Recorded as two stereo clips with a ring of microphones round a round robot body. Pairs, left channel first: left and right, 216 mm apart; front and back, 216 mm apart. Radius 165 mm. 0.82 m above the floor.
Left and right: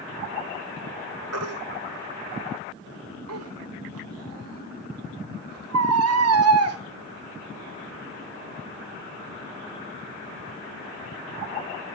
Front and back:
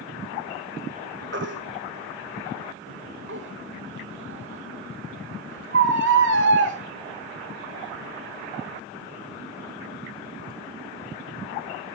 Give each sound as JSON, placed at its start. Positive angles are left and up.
{"t": 1.3, "sound": "a baby crying", "azimuth_deg": -125, "distance_m": 1.4}